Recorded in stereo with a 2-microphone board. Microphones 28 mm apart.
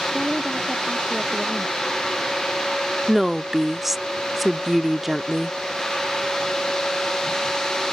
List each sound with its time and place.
0.1 s a woman speaking: 10° right (ahead or behind)
3.1 s a woman speaking: 5° right (ahead or behind)